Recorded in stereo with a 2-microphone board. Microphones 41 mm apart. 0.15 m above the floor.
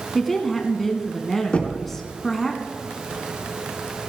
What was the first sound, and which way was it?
A woman speaking, 5° left (ahead or behind).